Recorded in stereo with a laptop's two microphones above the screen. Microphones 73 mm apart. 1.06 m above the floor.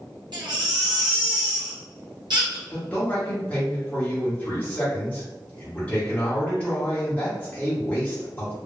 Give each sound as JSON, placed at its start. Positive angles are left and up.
{"t": 0.3, "sound": "a baby crying", "side_deg": -70, "distance_m": 0.7}
{"t": 2.7, "sound": "a man speaking", "side_deg": 20, "distance_m": 1.1}